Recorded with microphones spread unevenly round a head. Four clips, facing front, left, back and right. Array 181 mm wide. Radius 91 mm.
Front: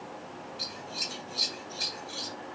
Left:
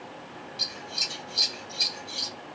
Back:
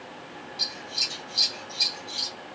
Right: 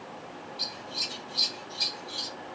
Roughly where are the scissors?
Ahead left.